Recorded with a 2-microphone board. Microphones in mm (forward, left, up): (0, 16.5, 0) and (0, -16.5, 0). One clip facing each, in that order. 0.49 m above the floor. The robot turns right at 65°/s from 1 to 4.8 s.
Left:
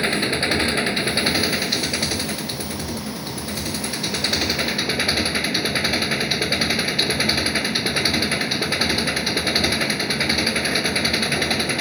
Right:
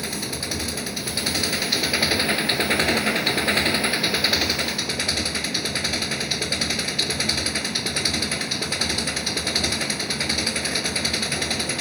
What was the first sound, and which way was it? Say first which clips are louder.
An engine running: left 9 dB; 135° left.